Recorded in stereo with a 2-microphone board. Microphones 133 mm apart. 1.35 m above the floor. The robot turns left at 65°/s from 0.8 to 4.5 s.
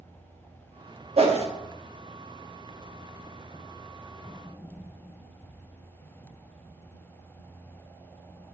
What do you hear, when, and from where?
1.2 s a whoosh: 45° right (ahead or behind), 1.0 m; by 1.5 s 50° right (ahead or behind), 1.0 m